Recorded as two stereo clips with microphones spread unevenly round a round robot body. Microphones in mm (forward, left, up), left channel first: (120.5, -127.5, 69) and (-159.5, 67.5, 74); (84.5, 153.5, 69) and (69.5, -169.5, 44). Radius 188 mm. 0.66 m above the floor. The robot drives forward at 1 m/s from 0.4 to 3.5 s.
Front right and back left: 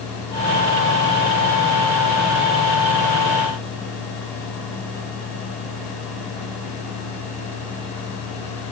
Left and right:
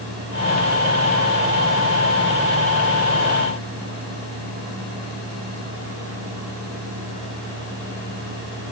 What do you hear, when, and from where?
Only background noise.